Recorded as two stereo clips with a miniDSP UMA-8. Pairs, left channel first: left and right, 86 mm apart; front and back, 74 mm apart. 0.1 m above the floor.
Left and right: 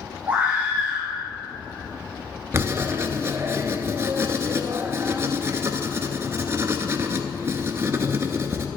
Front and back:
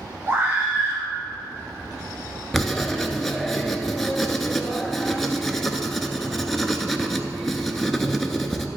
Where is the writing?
85° right, 0.7 m.